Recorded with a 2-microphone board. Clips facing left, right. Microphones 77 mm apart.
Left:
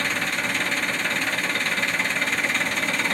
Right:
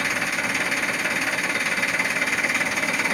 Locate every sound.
0.0 s an engine running: 10° right (ahead or behind), 0.9 m